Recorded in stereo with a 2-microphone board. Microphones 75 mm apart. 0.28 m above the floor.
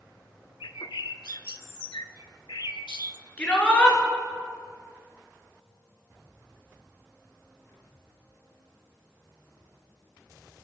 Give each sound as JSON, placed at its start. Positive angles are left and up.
{"t": 0.6, "sound": "a bird", "side_deg": 80, "distance_m": 0.6}
{"t": 3.4, "sound": "a shout", "side_deg": 20, "distance_m": 4.0}